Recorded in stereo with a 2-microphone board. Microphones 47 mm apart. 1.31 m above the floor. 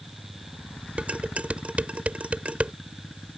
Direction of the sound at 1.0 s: 30° right (ahead or behind).